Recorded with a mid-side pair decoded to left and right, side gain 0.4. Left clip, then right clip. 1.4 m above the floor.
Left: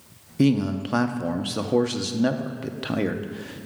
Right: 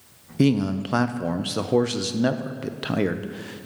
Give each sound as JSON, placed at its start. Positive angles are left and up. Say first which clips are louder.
{"t": 0.4, "sound": "a man speaking", "louder": "even", "azimuth_deg": -15, "distance_m": 0.5}